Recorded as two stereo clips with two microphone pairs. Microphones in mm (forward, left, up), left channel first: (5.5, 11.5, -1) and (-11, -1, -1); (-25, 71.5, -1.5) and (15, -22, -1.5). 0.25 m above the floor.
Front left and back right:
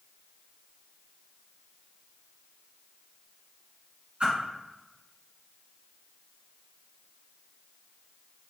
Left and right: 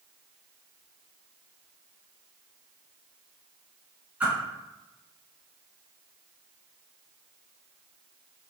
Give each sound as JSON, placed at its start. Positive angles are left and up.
{"t": 4.2, "sound": "a whoosh", "azimuth_deg": -140, "distance_m": 1.8}